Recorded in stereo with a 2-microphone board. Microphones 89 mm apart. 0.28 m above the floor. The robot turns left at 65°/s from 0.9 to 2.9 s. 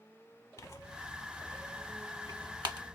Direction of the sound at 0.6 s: 40° left (ahead or behind).